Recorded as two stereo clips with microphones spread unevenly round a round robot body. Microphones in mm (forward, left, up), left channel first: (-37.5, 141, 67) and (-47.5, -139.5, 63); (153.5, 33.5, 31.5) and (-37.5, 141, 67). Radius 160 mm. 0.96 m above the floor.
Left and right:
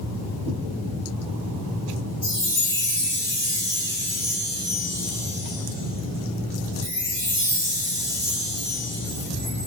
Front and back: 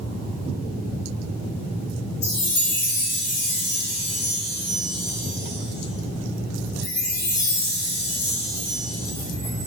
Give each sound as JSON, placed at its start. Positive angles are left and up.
{"t": 2.2, "sound": "a chime", "azimuth_deg": 15, "distance_m": 1.1}